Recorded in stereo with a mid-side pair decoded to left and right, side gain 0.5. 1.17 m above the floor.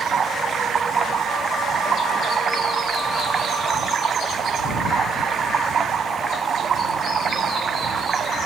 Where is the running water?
40° right.